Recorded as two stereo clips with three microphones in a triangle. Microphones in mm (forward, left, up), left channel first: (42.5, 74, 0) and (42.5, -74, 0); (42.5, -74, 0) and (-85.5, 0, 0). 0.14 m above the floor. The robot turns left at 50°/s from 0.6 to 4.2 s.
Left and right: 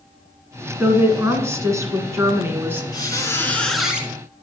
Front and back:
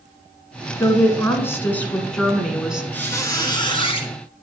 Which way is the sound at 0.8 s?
40° right.